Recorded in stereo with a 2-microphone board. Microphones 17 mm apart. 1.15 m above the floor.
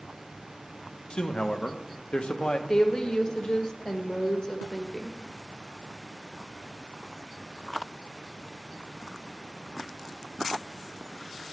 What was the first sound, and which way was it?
A man speaking, 70° left (ahead or behind).